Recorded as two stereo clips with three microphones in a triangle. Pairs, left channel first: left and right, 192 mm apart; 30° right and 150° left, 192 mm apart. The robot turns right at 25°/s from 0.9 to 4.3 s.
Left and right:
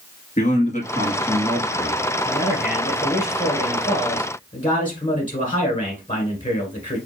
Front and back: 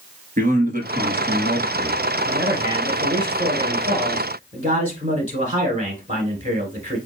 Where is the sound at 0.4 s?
125° left, 1.5 m; by 2.0 s 155° left, 1.5 m.